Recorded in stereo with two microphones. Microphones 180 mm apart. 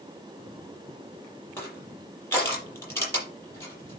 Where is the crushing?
15° left (ahead or behind), 7.5 m.